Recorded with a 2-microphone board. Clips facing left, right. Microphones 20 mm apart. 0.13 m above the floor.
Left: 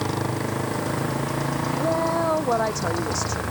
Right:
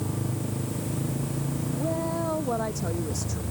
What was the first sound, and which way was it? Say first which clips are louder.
A motorcycle: left 6 dB; 75° left (ahead or behind).